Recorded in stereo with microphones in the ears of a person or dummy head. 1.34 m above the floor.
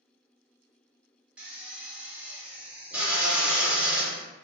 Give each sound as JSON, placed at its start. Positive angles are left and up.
{"t": 1.4, "sound": "a drill", "side_deg": -10, "distance_m": 0.8}